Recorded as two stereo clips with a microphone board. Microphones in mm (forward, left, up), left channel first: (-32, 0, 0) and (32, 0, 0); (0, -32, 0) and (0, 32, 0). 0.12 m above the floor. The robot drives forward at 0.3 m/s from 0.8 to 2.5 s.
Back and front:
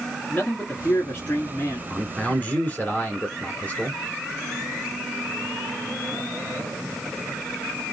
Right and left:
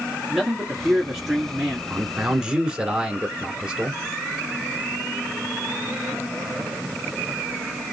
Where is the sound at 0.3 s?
170° left, 1.5 m; by 1.8 s 175° left, 1.7 m.